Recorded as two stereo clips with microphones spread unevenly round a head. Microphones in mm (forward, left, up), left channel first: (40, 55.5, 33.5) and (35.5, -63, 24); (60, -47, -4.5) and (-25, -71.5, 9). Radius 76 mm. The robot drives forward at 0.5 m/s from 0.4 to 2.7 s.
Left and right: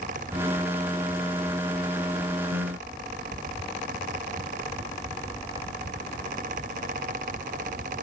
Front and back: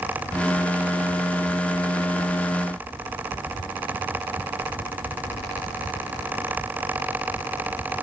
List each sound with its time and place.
Only background noise.